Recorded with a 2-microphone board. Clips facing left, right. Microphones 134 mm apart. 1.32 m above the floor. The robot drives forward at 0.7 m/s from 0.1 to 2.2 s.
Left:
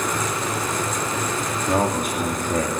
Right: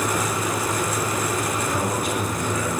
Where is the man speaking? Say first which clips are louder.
Left 3 dB; 45° left (ahead or behind), 3 m; by 2.7 s 50° left (ahead or behind), 2.5 m.